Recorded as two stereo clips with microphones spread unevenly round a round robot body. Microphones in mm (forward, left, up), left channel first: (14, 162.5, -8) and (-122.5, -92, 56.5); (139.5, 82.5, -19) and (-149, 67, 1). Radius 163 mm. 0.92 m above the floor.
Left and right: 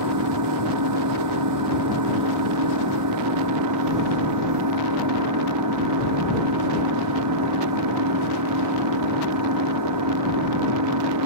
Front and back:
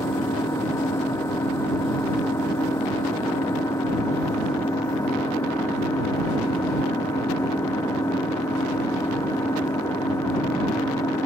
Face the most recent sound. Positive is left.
turn(degrees=-80)